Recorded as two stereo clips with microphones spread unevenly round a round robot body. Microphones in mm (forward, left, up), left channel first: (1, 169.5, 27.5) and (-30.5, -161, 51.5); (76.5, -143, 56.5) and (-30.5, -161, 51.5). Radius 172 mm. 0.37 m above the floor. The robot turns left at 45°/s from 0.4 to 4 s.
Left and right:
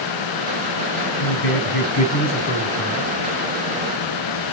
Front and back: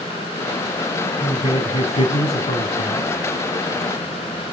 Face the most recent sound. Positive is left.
turn(degrees=-40)